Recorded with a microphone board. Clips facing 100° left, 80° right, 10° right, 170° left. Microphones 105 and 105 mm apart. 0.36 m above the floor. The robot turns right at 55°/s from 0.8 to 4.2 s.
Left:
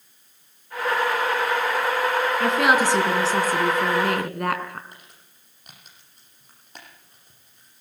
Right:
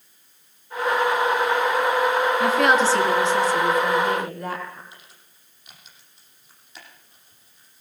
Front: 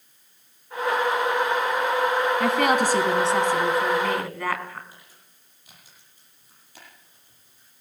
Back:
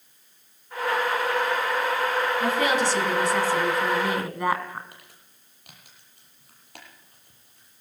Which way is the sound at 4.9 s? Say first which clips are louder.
Even, back 1 dB; 145° left.